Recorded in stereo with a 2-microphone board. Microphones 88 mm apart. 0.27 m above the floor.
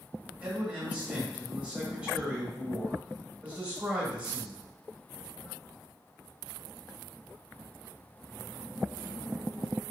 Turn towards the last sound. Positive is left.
turn(degrees=-15)  # may be behind; listen again after turning